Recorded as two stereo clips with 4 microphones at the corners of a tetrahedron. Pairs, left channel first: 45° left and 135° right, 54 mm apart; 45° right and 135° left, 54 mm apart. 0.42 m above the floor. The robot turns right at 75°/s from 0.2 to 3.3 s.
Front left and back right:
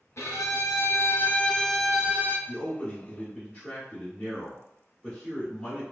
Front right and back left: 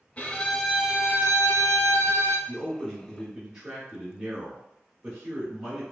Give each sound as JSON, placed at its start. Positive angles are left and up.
{"t": 0.2, "sound": "a violin", "azimuth_deg": 15, "distance_m": 0.5}
{"t": 2.5, "sound": "a man speaking", "azimuth_deg": 5, "distance_m": 1.0}